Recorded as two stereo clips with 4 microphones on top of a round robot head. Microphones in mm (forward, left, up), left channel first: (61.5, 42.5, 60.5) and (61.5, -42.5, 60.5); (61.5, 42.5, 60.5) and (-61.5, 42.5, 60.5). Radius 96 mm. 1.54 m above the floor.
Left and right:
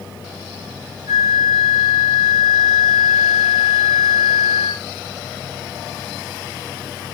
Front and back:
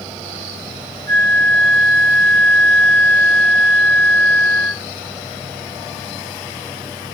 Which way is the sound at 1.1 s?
160° right.